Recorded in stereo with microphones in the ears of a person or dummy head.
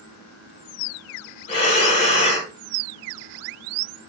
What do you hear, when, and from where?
1.5 s breathing: 40° left (ahead or behind), 1.4 m